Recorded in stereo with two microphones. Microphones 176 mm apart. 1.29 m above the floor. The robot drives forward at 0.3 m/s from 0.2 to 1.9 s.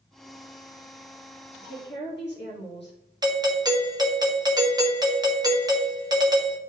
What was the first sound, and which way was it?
A woman speaking, 85° left.